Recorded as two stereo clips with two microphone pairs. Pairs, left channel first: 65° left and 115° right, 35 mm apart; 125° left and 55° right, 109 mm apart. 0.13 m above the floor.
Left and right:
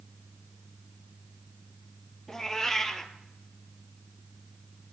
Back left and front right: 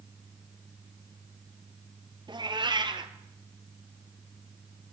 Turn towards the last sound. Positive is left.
turn(degrees=-15)